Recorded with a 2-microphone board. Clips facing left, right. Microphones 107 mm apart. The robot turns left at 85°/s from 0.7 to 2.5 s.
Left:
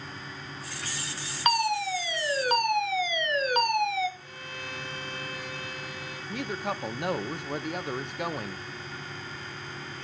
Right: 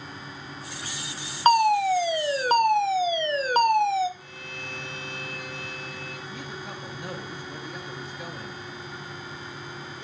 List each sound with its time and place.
1.4 s a fire alarm: 45° right, 1.2 m; by 4.1 s 135° right, 1.2 m
4.2 s a violin: 55° right (ahead or behind), 7.5 m
6.3 s a woman speaking: 60° left (ahead or behind), 1.1 m